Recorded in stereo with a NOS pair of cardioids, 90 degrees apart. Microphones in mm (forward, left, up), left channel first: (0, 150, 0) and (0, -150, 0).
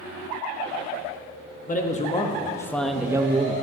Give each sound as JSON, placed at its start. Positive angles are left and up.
{"t": 1.7, "sound": "a man speaking", "azimuth_deg": 25, "distance_m": 1.4}